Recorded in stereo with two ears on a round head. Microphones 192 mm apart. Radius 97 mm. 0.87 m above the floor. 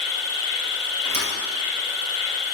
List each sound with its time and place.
0.0 s an insect: 20° left (ahead or behind), 1.3 m
1.0 s a thud: 35° right (ahead or behind), 2 m